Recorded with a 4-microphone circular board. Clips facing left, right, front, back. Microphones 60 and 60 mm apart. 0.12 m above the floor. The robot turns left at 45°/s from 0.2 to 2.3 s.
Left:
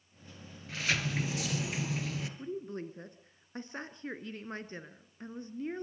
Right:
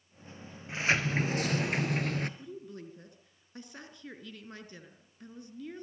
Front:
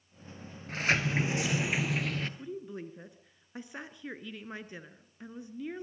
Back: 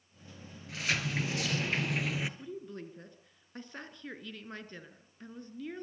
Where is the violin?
I don't hear a violin.